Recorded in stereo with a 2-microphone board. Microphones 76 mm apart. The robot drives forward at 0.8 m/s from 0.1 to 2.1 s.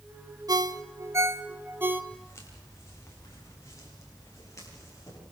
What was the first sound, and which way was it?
A ringtone, 55° right (ahead or behind).